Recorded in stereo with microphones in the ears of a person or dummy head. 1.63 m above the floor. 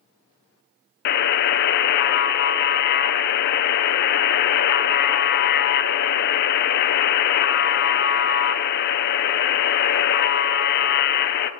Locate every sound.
1.1 s a buzzer: 55° left (ahead or behind), 0.6 m